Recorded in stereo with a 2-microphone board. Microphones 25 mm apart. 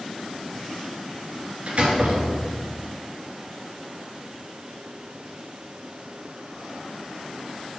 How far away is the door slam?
About 1.7 m.